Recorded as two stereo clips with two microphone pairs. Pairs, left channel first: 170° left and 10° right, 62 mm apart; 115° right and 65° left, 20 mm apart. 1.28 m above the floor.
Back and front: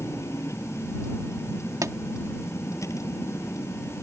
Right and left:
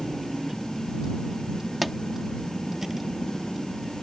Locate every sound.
0.0 s a vehicle: 135° left
1.8 s a pop: 25° right